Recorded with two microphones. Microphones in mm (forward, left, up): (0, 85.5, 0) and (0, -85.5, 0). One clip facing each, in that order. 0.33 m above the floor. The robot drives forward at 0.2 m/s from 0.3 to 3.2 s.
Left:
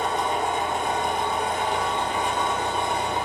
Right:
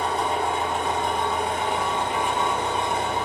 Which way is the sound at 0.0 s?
35° right (ahead or behind).